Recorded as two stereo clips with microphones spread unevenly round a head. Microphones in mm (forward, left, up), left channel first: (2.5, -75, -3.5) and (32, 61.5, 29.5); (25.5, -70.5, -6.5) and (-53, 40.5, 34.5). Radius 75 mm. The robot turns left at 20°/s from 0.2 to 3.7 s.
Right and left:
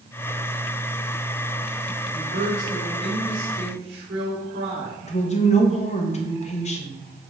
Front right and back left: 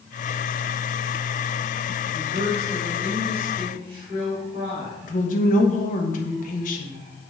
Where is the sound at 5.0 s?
65° right, 1.1 m.